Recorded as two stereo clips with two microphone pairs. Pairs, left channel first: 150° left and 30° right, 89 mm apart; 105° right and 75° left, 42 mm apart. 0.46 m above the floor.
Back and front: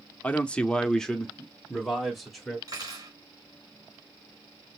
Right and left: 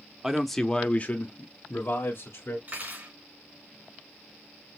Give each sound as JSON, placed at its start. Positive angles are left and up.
{"t": 0.2, "sound": "a man speaking", "azimuth_deg": 125, "distance_m": 0.7}
{"t": 2.7, "sound": "cutlery clinking", "azimuth_deg": 15, "distance_m": 3.0}